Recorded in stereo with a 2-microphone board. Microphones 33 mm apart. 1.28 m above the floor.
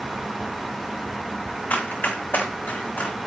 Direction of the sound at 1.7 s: 75° left (ahead or behind).